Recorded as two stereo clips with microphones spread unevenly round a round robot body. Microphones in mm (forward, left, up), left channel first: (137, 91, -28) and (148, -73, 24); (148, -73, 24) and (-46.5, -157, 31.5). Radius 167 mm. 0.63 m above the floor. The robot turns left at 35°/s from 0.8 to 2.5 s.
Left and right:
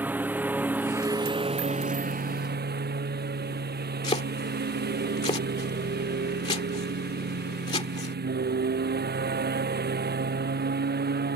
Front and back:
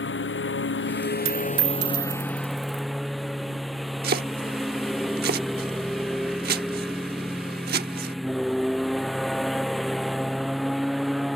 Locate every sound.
0.0 s a lawn mower: 5° right; by 11.4 s 65° right
1.2 s a dropped coin: 125° right; by 2.8 s 170° right
4.0 s chopping: 155° left